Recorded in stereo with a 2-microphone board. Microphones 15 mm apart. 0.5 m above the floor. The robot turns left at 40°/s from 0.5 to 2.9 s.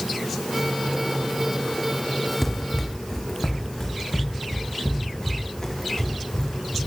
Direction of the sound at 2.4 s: 15° left (ahead or behind).